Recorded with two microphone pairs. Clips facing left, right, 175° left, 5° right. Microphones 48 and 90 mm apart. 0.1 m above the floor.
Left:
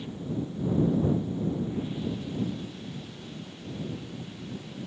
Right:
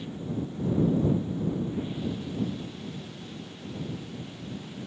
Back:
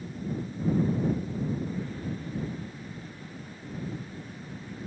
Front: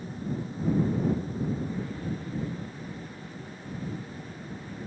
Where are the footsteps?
No footsteps in this recording.